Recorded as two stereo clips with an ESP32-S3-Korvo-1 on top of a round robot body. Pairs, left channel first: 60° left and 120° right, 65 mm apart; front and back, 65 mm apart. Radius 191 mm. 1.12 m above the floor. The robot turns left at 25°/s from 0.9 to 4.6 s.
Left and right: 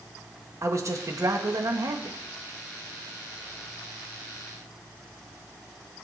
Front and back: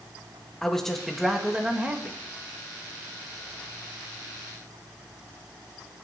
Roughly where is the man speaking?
Right.